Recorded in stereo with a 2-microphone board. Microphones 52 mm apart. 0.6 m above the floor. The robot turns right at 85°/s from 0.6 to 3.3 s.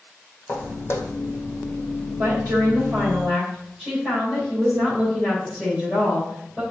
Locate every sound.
0.5 s footsteps: 45° left (ahead or behind), 1.0 m; by 1.2 s 55° left (ahead or behind), 1.0 m
2.2 s a woman speaking: 110° right, 3 m; by 6.6 s 20° right, 3 m